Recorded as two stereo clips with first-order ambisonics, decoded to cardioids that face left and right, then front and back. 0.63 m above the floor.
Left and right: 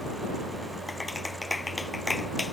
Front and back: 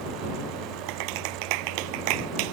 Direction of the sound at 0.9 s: 170° left.